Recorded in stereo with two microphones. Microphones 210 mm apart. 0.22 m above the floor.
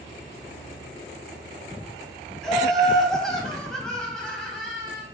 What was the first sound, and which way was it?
Laughter, centre (ahead or behind).